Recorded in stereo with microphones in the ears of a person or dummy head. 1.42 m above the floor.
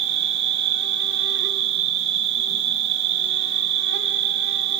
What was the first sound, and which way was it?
An insect, 65° right (ahead or behind).